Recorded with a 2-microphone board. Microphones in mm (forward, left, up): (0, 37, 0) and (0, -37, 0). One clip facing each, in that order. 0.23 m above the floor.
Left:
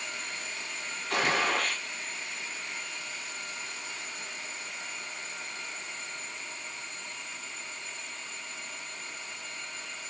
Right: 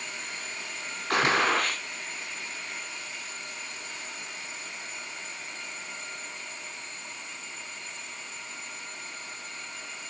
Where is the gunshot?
65° right (ahead or behind), 1.1 m.